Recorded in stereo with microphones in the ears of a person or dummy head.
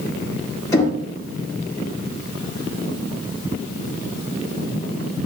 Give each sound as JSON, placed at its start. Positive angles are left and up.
{"t": 0.7, "sound": "knocking", "side_deg": 15, "distance_m": 1.4}